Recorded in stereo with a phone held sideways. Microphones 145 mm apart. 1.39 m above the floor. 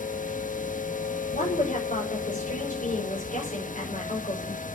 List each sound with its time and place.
0.0 s a machine running: 65° left (ahead or behind), 1.4 m
1.3 s a woman speaking: 65° left (ahead or behind), 6 m